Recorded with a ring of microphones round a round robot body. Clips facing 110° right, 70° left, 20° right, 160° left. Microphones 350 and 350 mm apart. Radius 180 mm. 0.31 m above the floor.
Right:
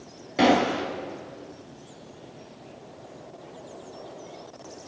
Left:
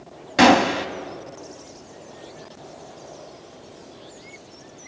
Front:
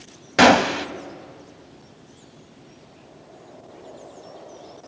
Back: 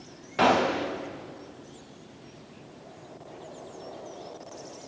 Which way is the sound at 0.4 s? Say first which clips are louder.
Left 4 dB, front 7 dB; 5° left.